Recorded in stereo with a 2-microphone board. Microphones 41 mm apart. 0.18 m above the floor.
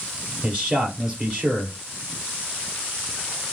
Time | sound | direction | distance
0.4 | a man speaking | 20° right (ahead or behind) | 3.5 m